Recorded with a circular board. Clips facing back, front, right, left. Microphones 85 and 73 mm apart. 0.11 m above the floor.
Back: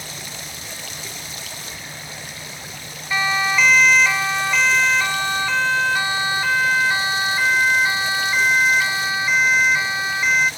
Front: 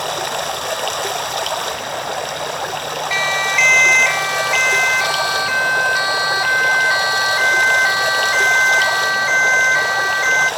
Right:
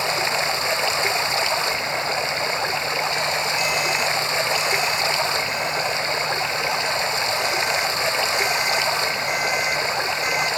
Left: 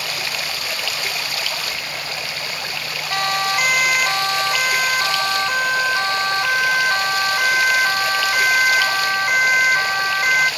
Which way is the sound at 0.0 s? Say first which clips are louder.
Front 15 dB, right 5 dB; 25° right.